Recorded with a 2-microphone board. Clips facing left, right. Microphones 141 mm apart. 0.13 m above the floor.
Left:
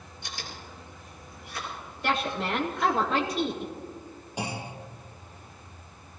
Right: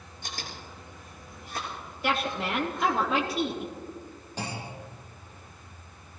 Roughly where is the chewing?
Right.